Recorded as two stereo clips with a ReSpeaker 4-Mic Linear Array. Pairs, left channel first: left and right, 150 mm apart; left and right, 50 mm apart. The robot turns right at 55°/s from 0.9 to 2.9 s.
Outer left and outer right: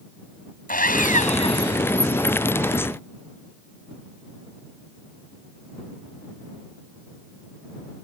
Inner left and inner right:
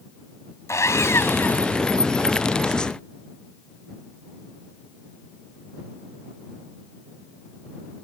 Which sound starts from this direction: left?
Sawing, at 0.7 s.